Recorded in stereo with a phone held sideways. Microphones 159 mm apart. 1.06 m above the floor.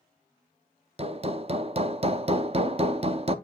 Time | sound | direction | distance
1.0 | hammering | 40° right (ahead or behind) | 0.6 m